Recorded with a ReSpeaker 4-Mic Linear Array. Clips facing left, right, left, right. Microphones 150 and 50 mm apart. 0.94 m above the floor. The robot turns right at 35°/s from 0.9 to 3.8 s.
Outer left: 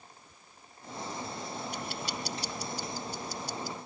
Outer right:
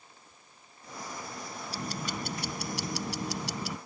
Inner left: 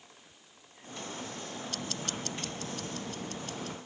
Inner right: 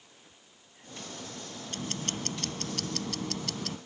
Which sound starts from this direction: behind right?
Ticking, at 1.7 s.